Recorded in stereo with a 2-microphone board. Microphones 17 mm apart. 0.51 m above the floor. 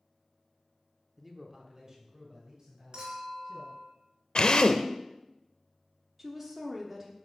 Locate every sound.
1.2 s a man speaking: 5° right (ahead or behind), 0.7 m; by 3.8 s 45° right (ahead or behind), 3.5 m
2.9 s a clink: 55° right (ahead or behind), 3.5 m
4.3 s a drill: 60° left (ahead or behind), 0.6 m
6.2 s a woman speaking: 10° right (ahead or behind), 0.9 m